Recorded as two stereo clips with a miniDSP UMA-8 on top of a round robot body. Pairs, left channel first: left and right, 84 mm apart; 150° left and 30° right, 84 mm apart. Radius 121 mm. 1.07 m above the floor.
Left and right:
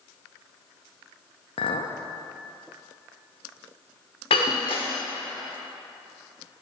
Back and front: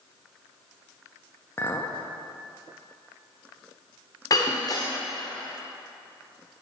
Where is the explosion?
No explosion in this recording.